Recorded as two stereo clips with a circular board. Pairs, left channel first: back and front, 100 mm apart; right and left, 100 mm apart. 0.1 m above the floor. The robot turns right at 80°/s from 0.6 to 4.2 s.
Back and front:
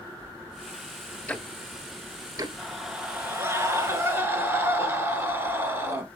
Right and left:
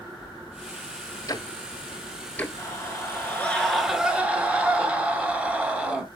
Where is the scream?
100° right, 1.8 m; by 6.0 s 30° left, 1.8 m.